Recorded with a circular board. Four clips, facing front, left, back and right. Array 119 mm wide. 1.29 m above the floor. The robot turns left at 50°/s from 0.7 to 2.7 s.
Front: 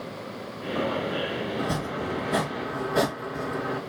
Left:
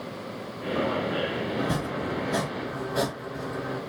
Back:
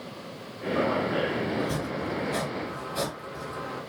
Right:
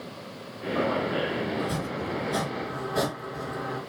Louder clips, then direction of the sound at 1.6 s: Left 2 dB, front 1 dB; 55° left.